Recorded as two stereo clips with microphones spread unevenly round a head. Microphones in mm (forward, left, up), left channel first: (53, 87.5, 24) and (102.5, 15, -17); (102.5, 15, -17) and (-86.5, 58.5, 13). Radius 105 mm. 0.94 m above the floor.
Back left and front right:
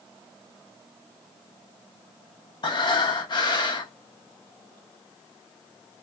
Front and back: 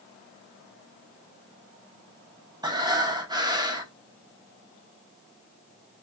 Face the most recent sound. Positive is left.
turn(degrees=100)